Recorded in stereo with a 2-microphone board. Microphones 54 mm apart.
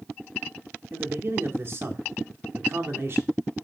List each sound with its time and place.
0.9 s a man speaking: 45° right (ahead or behind), 1.6 m